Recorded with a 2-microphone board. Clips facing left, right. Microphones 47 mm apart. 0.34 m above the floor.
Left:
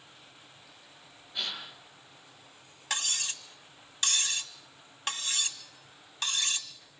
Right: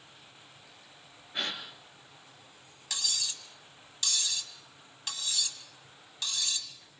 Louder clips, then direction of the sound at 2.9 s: Left 3 dB; 50° left (ahead or behind).